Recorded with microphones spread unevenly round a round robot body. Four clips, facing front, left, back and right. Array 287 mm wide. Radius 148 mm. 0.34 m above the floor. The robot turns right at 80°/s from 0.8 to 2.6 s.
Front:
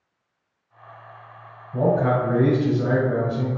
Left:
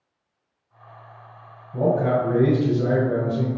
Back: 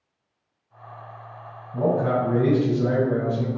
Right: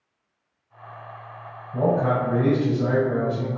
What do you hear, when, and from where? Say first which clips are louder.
1.7 s a man speaking: left 1 dB, front 2 dB; 25° right, 1.8 m; by 3.6 s 45° left, 1.8 m